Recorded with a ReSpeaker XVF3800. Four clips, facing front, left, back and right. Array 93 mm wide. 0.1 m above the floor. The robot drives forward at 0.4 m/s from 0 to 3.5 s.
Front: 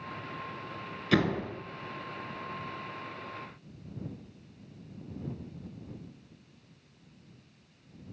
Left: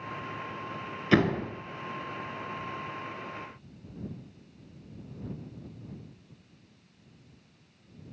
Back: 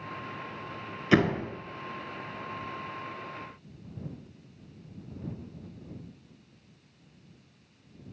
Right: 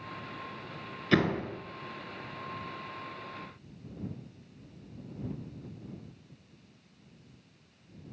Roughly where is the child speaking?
No child speaking in this recording.